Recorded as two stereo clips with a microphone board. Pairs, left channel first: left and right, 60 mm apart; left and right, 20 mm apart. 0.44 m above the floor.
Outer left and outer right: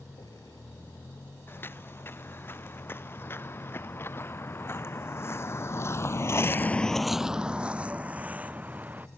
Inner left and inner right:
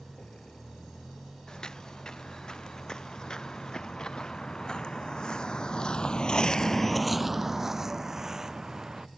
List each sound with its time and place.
0.0 s a vehicle: 75° left (ahead or behind); by 9.2 s 60° left (ahead or behind)
1.5 s footsteps: 40° left (ahead or behind); by 9.1 s 30° right (ahead or behind)